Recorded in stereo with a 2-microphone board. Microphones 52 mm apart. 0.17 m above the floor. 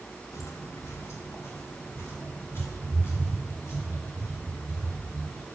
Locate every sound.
0.3 s footsteps: 65° left (ahead or behind), 1.3 m; by 5.5 s 45° left (ahead or behind), 5.5 m